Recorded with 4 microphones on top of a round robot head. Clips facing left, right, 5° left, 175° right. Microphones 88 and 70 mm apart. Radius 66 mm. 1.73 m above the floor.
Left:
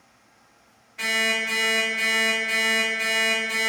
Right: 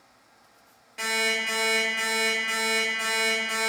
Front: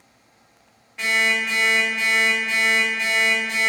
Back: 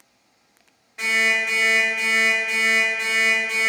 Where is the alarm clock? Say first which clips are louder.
Left 2 dB, even; 100° right, 1.2 m.